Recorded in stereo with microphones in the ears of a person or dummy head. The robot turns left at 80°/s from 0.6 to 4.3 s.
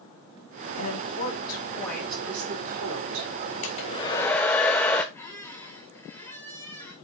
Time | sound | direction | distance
0.8 | a woman speaking | 90° left | 3 m
3.6 | a hair dryer | 70° left | 1.1 m
5.1 | a squeak | 15° left (ahead or behind) | 1.0 m